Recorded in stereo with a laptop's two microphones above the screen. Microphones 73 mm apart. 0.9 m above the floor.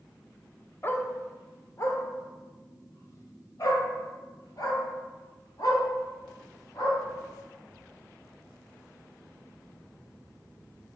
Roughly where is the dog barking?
Left.